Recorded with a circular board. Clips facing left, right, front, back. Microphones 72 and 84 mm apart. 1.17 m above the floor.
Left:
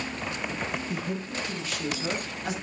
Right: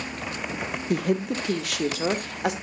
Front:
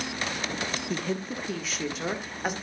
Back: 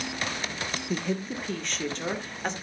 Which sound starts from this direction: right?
A woman speaking, at 0.9 s.